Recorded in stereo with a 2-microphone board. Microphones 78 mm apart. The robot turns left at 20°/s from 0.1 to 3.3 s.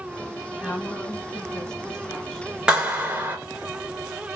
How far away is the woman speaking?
About 1.2 m.